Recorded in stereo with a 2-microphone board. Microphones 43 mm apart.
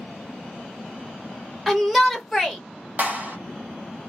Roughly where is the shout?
Centre.